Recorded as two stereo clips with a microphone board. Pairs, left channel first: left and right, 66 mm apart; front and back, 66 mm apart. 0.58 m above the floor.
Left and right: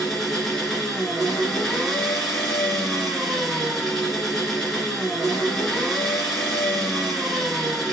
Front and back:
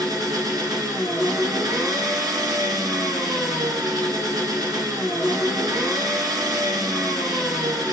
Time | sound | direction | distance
0.0 | an engine running | 170° left | 1.9 m